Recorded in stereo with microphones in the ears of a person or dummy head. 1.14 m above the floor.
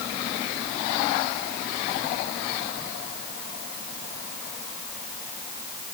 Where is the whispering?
I don't hear whispering.